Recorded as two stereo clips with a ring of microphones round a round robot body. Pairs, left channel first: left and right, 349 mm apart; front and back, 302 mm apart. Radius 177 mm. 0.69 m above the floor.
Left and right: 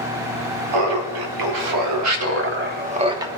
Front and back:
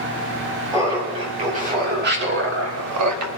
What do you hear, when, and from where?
0.7 s laughter: 100° right, 2 m; by 3.3 s 170° right, 1.4 m